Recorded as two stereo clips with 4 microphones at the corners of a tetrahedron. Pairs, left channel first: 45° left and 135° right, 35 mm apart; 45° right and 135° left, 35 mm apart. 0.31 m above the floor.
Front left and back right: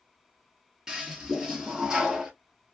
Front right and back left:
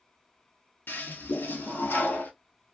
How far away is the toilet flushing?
About 1.2 m.